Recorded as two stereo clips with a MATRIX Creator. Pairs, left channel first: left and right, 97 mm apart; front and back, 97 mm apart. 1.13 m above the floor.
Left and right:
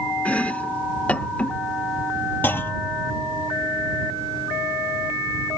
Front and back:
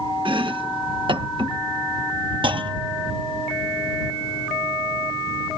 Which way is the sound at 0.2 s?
165° left.